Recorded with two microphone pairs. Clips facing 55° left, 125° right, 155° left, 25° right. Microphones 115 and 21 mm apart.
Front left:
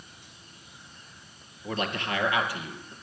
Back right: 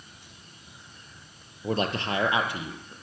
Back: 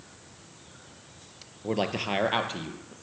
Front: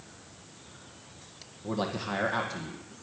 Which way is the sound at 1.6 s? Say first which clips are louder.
Back right 3 dB, back 4 dB; 170° right.